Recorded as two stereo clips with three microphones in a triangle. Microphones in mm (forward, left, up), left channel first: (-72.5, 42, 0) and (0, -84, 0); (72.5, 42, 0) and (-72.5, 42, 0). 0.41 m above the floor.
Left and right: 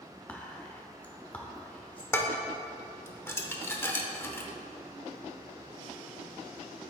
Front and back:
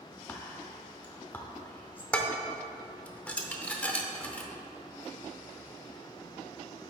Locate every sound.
0.3 s whispering: 55° left, 0.8 m
2.1 s dishes clattering: 70° left, 0.7 m